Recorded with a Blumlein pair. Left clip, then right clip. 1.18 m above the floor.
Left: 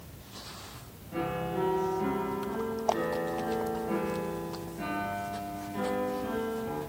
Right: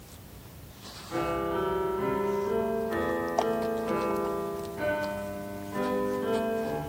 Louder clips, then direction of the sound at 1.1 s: Right 4 dB; 45° right.